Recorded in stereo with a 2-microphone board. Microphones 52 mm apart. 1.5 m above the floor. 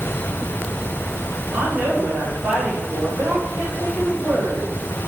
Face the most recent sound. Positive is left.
turn(degrees=-35)  # may be behind; listen again after turning